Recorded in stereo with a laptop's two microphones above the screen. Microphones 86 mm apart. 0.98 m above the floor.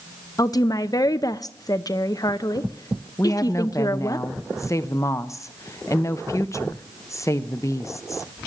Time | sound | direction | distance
0.4 | a woman speaking | 45° left (ahead or behind) | 0.7 m
3.2 | a woman speaking | 35° left (ahead or behind) | 0.8 m